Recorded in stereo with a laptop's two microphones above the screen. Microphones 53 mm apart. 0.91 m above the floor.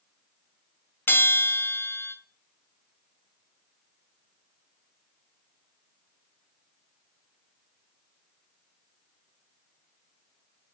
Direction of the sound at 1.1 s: 45° left (ahead or behind).